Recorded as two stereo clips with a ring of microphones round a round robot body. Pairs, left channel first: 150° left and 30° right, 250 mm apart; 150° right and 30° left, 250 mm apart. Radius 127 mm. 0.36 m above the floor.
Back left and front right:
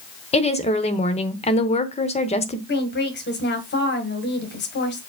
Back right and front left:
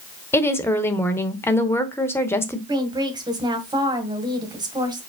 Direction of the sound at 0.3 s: 140° left.